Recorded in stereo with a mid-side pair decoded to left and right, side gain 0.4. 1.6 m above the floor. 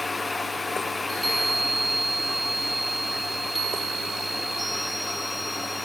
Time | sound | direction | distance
0.0 | a fan | 25° left | 1.3 m
1.0 | a chime | 20° right | 3 m